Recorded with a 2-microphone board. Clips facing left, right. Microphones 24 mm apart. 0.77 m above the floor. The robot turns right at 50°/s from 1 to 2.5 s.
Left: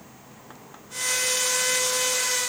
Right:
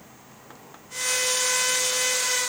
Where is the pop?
I don't hear a pop.